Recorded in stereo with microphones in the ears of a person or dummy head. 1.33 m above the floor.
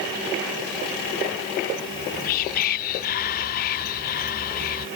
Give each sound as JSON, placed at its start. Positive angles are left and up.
{"t": 1.9, "sound": "whispering", "side_deg": 55}